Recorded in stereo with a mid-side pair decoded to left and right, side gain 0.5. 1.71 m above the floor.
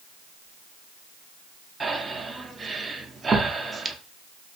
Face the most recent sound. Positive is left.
turn(degrees=-30)